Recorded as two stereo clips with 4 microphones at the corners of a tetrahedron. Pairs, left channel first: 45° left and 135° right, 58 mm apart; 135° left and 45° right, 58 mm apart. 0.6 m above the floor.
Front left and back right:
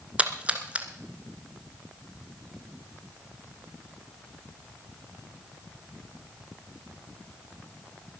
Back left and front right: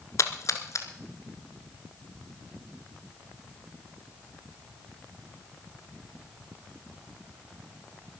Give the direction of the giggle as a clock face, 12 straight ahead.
No giggle in this recording.